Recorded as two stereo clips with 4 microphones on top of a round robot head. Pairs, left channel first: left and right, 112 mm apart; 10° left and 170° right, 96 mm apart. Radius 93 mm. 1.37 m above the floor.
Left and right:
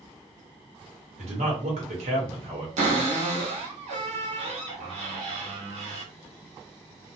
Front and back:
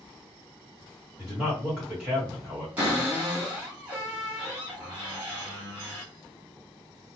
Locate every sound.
1.2 s a man speaking: 90° right, 1.3 m
2.8 s a cupboard door: 95° right, 0.9 m